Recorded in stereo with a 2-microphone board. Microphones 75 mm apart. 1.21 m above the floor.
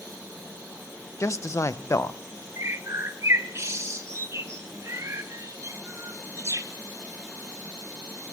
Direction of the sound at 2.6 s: 40° right (ahead or behind).